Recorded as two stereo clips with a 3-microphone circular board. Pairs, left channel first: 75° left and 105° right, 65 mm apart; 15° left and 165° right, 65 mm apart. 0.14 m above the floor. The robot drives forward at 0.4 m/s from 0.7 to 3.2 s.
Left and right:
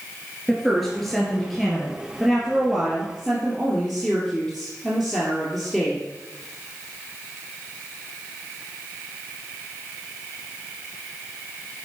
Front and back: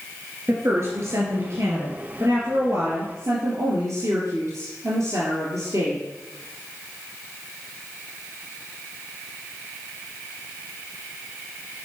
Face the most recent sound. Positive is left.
turn(degrees=170)